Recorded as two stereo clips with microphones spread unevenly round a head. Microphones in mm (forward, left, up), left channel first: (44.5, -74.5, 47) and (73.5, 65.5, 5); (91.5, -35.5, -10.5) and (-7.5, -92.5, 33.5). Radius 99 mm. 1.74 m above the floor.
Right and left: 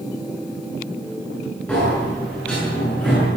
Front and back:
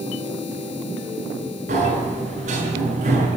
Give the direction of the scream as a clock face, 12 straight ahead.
I don't hear a scream.